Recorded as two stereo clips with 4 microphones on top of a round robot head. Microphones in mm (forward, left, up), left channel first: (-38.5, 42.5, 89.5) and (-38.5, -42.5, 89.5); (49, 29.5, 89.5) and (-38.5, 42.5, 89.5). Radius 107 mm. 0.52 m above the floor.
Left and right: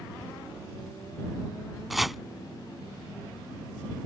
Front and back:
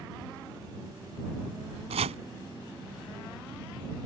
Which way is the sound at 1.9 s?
Straight behind.